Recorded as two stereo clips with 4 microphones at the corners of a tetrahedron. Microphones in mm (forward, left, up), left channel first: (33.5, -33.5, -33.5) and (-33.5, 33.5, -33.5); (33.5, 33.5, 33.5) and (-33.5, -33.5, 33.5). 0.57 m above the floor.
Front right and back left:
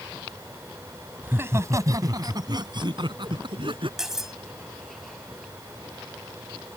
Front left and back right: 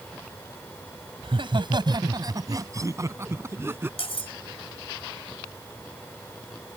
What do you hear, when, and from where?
1.2 s laughter: 160° right; by 3.9 s 160° left
4.0 s cutlery clinking: 50° left